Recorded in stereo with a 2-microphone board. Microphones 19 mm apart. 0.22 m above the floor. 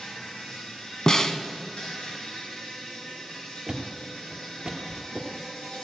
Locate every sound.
0.0 s an insect: 65° left (ahead or behind), 4.5 m
1.1 s a snare drum: 40° left (ahead or behind), 0.8 m
3.7 s a thud: 45° right (ahead or behind), 1.5 m